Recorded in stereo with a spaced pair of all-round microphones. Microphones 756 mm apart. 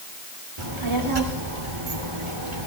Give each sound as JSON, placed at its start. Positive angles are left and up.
{"t": 0.6, "sound": "a child speaking", "side_deg": -40, "distance_m": 2.5}